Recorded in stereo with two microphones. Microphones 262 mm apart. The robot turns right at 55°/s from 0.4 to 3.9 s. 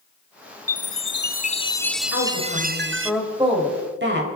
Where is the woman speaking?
125° left, 4 m; by 4.3 s 140° right, 4 m.